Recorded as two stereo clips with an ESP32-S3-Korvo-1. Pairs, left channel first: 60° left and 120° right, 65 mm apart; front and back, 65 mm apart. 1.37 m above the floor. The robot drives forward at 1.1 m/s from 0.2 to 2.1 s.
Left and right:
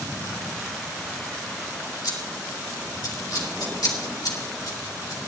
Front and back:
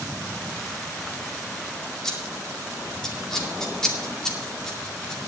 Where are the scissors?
80° left, 2.5 m.